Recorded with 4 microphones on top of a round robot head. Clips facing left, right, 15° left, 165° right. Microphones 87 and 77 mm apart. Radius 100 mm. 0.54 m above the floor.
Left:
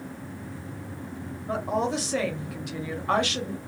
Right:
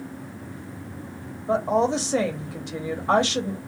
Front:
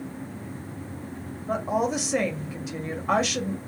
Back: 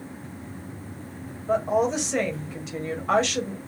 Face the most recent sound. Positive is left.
turn(degrees=-65)